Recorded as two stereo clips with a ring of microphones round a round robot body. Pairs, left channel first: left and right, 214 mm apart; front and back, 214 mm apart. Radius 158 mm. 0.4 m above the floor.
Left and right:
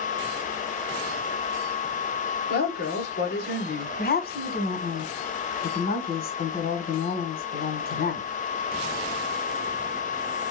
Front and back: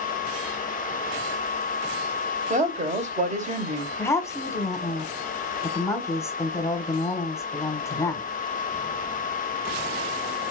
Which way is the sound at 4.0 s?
75° left.